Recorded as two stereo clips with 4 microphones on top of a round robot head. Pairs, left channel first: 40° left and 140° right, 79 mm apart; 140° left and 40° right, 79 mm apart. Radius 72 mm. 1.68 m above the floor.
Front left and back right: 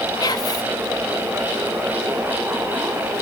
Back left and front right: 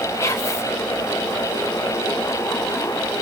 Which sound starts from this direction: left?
Whispering, at 0.2 s.